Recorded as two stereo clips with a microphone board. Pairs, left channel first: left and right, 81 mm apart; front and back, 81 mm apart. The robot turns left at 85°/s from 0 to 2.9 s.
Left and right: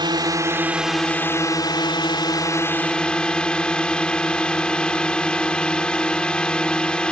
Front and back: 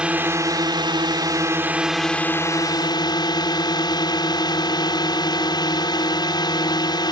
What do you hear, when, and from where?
0.0 s a drone: 100° right; by 7.1 s 10° left